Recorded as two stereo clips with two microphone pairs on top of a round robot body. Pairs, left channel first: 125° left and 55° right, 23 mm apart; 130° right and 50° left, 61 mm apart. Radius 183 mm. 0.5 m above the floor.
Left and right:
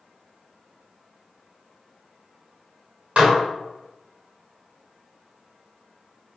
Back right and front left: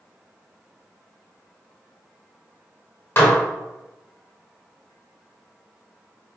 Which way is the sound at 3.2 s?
85° right.